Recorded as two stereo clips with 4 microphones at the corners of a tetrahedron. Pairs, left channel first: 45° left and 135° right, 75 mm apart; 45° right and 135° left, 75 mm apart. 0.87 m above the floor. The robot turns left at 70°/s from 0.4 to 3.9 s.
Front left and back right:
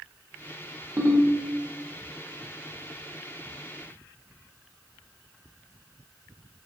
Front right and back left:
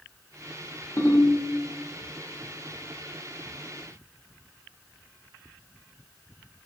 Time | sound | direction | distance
1.0 | a ringtone | 80° right | 0.7 m